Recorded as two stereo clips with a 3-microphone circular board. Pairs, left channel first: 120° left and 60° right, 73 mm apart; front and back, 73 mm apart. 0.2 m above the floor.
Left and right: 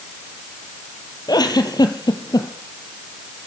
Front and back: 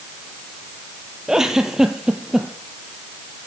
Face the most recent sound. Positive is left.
turn(degrees=100)